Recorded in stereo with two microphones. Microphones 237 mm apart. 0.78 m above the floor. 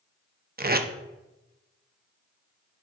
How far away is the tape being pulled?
About 0.5 m.